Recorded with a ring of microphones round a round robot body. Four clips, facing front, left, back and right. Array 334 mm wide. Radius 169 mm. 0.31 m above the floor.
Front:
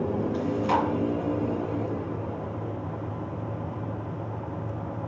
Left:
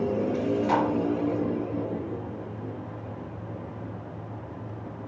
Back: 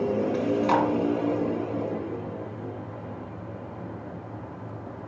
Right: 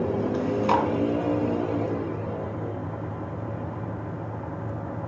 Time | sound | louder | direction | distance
0.3 | chewing | right 2 dB, back 2 dB | 115° right | 2.5 m